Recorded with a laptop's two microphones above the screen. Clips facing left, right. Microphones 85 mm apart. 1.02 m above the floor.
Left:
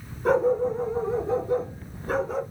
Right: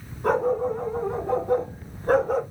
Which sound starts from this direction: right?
A dog barking, at 0.2 s.